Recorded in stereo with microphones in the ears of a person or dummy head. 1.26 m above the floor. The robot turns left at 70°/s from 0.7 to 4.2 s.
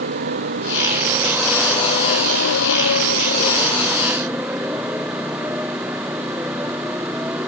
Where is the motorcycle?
60° right (ahead or behind); by 7.5 s centre (ahead or behind).